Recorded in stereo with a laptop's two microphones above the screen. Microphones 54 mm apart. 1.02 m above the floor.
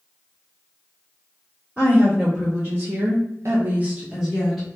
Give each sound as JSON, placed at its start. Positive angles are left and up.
{"t": 1.8, "sound": "a woman speaking", "side_deg": -30, "distance_m": 1.7}